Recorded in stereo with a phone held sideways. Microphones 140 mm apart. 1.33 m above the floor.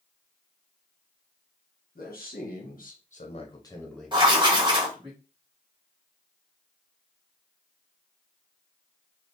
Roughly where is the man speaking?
Left.